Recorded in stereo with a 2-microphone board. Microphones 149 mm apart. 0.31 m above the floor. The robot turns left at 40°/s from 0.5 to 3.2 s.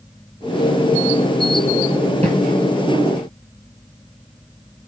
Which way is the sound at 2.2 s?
45° right (ahead or behind).